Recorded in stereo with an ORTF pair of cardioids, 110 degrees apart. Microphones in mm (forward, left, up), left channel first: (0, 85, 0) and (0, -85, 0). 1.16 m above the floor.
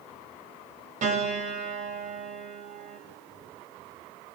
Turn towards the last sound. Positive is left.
turn(degrees=-50)